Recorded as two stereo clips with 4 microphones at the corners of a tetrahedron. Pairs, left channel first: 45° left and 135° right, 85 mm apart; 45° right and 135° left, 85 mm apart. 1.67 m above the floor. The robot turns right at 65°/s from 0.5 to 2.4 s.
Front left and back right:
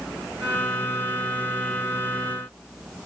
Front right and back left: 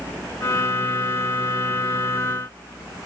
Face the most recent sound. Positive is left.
No sound to turn to.